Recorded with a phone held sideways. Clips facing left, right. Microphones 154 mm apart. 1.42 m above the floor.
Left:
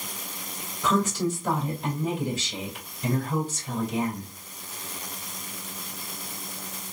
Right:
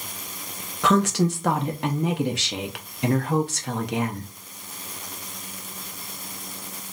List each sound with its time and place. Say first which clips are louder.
0.8 s a woman speaking: right 4 dB; 75° right (ahead or behind), 0.6 m